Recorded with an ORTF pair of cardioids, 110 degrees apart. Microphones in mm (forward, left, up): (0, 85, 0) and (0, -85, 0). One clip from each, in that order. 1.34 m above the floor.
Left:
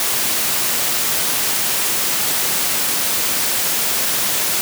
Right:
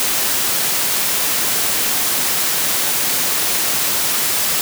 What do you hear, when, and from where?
Only background noise.